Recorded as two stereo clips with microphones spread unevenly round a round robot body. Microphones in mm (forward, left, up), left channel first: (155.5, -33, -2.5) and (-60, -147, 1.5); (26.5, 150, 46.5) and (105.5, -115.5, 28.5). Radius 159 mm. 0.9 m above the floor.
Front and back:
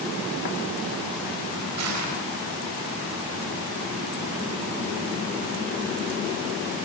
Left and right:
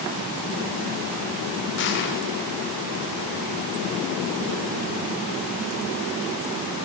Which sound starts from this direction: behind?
Crushing, at 1.8 s.